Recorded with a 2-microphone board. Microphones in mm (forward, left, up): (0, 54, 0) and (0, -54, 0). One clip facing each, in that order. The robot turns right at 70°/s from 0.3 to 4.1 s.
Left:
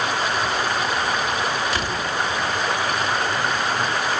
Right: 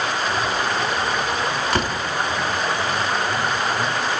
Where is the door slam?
55° right (ahead or behind), 3.5 m; by 2.0 s 35° right (ahead or behind), 3.5 m.